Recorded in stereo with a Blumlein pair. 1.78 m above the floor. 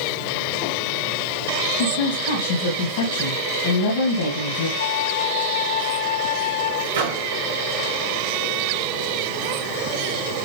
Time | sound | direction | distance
1.8 | a woman speaking | 50° left | 2.5 m
4.8 | a flute | 60° left | 3.5 m
6.9 | a microwave | 55° right | 2.5 m